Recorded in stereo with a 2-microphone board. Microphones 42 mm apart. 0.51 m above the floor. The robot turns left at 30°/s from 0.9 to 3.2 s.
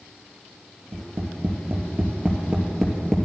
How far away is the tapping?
About 2.5 m.